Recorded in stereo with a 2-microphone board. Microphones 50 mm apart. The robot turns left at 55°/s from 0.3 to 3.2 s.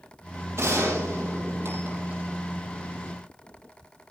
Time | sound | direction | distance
0.6 | a gunshot | 65° right | 6 m